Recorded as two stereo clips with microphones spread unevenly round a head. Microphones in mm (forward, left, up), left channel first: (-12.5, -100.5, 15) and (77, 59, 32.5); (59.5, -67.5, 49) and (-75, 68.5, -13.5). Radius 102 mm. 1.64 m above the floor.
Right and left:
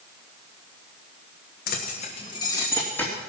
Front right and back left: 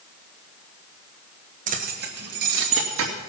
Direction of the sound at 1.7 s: 165° right.